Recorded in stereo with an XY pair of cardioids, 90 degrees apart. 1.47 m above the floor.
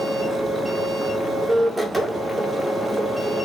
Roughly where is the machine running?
Ahead.